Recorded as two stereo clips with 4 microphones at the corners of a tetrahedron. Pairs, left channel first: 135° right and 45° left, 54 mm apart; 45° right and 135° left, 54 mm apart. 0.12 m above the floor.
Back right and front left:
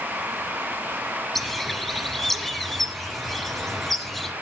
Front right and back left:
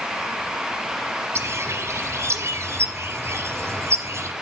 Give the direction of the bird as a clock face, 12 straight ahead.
7 o'clock.